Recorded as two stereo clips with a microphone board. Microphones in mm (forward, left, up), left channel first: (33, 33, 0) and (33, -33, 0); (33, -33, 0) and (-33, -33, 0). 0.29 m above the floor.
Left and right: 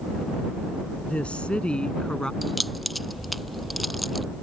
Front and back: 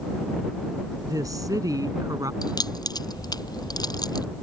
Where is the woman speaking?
160° left; by 2.3 s 170° left.